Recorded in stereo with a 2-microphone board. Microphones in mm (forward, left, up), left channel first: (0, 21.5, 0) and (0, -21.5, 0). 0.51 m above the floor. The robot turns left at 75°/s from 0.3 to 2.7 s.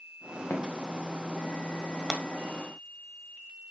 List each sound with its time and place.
0.5 s footsteps: 65° left (ahead or behind), 2 m; by 1.6 s 50° left (ahead or behind), 2.5 m
2.1 s breaking glass: centre (ahead or behind), 1.4 m; by 2.2 s 10° right (ahead or behind), 1.4 m